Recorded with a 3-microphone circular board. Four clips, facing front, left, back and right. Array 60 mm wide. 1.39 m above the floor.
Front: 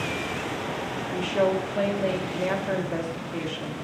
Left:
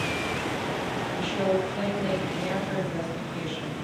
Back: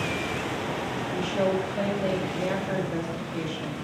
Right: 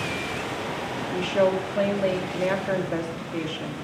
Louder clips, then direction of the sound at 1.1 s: Right 5 dB, front 2 dB; 55° right.